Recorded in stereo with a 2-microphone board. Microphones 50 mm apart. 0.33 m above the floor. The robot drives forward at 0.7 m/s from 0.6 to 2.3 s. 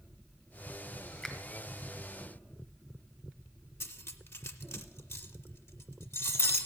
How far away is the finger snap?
About 1.3 m.